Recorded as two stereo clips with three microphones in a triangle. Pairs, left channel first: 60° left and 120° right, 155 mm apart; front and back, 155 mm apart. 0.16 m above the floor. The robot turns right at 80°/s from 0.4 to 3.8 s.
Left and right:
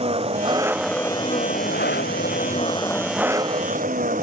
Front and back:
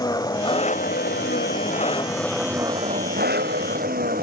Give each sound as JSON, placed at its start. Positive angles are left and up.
{"t": 0.0, "sound": "an engine running", "azimuth_deg": -65}